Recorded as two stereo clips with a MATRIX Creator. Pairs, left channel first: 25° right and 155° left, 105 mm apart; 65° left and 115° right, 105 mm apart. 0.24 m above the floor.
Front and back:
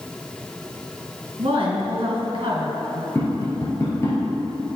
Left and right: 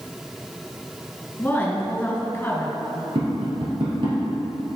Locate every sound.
1.4 s a woman speaking: 135° left, 2.5 m
3.1 s tapping: 85° right, 2.5 m